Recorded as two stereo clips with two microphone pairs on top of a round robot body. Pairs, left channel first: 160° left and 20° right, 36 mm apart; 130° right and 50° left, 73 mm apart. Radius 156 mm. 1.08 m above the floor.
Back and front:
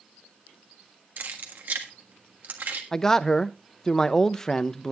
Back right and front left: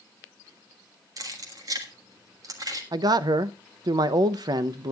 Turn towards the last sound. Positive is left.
turn(degrees=85)